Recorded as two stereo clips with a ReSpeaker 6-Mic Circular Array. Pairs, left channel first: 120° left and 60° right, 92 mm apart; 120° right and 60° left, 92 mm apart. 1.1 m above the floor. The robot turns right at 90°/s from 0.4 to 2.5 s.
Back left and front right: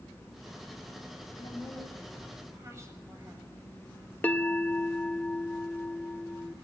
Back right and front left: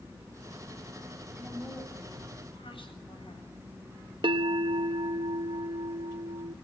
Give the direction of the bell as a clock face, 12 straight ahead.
10 o'clock.